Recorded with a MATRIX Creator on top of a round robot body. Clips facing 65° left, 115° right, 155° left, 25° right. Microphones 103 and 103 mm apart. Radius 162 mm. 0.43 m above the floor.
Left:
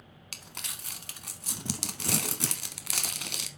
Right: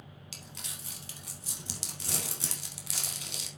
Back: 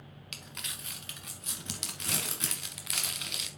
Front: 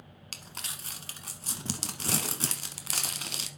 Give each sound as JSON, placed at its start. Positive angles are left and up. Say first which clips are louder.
{"t": 0.3, "sound": "crumpling", "louder": "left 4 dB, front 2 dB", "azimuth_deg": 35, "distance_m": 0.7}